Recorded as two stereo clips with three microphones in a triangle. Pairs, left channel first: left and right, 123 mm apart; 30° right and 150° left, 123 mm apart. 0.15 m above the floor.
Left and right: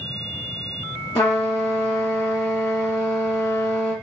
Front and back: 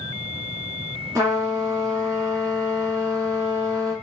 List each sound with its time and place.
1.1 s a trumpet: 105° left, 1.1 m